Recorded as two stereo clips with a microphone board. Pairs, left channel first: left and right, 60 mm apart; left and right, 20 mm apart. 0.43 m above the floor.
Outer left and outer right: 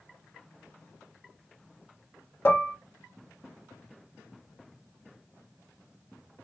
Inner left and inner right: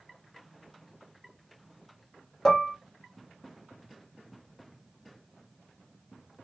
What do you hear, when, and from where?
2.5 s dishes clattering: 35° left (ahead or behind), 0.8 m